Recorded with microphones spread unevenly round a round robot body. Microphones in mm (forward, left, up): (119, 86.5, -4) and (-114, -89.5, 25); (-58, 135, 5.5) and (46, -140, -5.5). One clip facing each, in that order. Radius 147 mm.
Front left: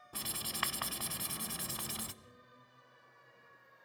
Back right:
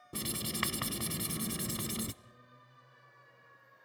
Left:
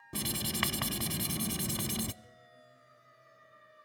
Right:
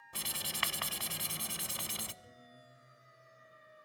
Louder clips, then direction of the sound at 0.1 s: Back right 9 dB, left 12 dB; 155° left.